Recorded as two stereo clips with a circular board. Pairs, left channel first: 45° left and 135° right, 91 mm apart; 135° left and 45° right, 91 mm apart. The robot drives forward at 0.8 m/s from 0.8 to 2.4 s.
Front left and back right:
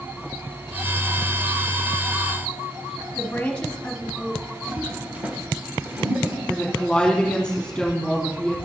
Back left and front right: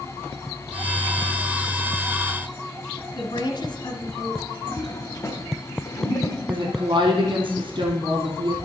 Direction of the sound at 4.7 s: 160° left.